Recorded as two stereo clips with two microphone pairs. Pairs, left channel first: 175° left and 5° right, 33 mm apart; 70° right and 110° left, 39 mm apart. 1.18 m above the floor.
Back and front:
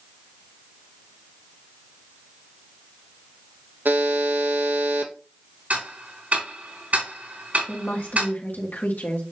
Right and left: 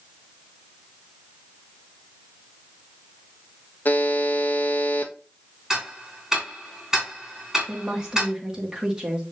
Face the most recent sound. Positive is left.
turn(degrees=180)